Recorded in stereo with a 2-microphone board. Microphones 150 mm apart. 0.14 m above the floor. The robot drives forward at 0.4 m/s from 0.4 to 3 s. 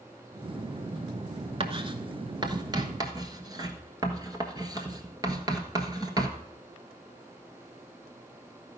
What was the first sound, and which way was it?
Writing, 40° right (ahead or behind).